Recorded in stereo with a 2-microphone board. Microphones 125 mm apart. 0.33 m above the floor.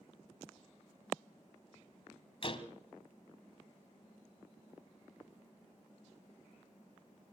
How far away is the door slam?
About 1.8 m.